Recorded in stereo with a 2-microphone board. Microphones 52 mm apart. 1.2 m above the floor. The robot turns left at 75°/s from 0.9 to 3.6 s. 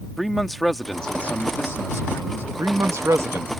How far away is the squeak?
No squeak in this recording.